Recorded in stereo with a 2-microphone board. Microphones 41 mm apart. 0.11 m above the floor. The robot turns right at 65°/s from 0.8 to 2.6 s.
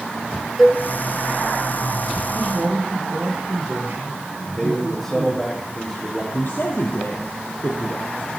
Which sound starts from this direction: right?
A man speaking, at 2.3 s.